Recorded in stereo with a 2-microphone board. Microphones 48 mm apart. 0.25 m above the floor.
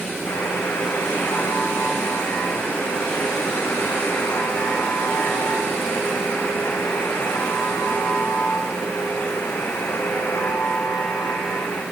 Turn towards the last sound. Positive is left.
turn(degrees=80)